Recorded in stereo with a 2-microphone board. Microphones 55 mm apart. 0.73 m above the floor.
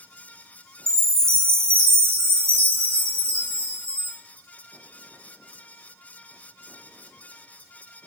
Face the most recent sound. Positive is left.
turn(degrees=-55)  # may be behind; listen again after turning